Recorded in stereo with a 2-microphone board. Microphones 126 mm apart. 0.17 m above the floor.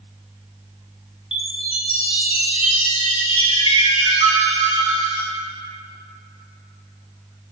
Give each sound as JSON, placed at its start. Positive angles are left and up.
{"t": 1.3, "sound": "a chime", "side_deg": 50, "distance_m": 1.1}